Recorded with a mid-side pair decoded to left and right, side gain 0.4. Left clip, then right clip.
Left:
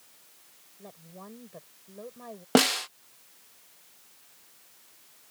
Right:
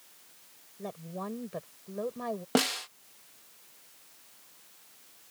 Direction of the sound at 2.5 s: 45° left.